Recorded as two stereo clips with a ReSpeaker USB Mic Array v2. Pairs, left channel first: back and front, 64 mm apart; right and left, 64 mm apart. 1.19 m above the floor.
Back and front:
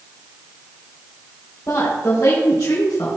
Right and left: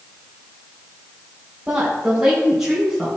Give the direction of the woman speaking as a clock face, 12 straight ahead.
6 o'clock.